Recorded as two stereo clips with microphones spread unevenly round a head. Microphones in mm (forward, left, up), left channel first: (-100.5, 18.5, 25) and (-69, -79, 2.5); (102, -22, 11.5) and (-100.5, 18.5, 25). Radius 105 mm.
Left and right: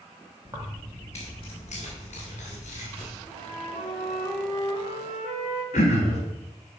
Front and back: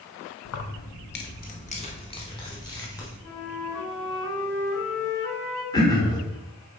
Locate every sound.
0.5 s keys jangling: 5° right, 1.0 m; by 3.1 s 65° left, 3 m
3.2 s a flute: 15° right, 3 m
5.7 s throat clearing: 60° left, 1.8 m